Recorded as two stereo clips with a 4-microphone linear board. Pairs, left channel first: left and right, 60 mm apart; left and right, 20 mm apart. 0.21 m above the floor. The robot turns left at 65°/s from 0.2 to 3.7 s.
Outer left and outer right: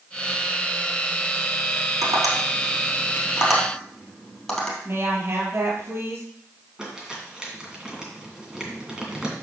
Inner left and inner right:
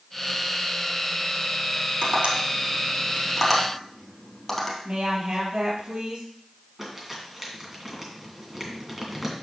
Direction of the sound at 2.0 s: 75° right (ahead or behind).